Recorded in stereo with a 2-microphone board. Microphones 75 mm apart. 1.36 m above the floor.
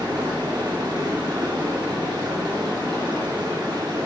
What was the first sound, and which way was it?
Running water, 85° right.